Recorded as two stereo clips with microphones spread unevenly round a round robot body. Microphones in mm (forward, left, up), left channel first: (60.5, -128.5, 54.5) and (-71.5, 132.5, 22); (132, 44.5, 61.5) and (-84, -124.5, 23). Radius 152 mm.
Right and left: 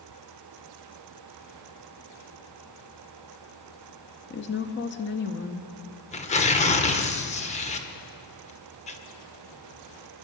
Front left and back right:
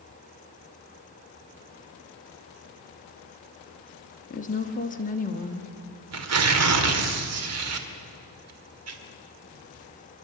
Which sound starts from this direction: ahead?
A woman speaking, at 4.3 s.